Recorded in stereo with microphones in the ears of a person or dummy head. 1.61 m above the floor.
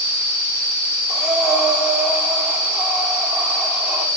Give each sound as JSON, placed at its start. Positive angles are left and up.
{"t": 1.1, "sound": "breathing", "side_deg": -5, "distance_m": 5.5}